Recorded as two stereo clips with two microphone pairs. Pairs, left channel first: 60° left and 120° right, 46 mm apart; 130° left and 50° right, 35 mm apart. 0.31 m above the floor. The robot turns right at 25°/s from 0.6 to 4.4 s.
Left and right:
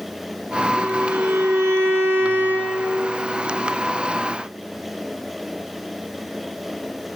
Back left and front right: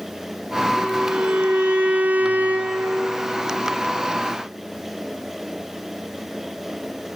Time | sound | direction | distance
0.8 | a violin | 120° right | 2.5 m